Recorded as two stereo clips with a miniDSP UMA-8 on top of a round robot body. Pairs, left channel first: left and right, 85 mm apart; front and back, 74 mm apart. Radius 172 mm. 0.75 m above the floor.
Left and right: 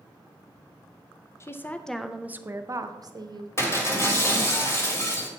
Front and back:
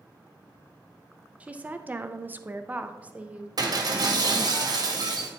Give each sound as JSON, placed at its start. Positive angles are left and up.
{"t": 1.4, "sound": "a woman speaking", "azimuth_deg": 120, "distance_m": 0.7}
{"t": 3.6, "sound": "breaking glass", "azimuth_deg": 150, "distance_m": 1.6}